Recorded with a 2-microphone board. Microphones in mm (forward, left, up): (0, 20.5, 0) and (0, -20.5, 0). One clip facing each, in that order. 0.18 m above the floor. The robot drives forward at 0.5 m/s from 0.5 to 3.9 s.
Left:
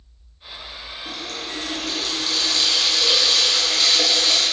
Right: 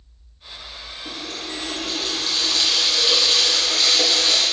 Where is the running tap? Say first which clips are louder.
Even; 20° right (ahead or behind), 2.5 m; by 4.4 s 10° right (ahead or behind), 4 m.